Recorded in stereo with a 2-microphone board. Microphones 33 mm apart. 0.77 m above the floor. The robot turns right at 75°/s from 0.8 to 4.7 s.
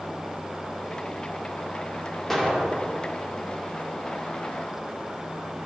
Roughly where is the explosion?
Behind.